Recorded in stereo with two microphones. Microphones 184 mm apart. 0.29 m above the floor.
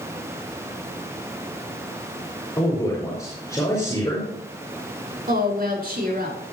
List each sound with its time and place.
2.6 s a man speaking: 15° left (ahead or behind), 5 m
5.3 s a woman speaking: 55° right (ahead or behind), 4 m